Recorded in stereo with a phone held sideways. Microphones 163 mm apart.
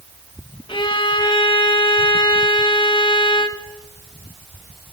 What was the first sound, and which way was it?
A violin, 30° left (ahead or behind).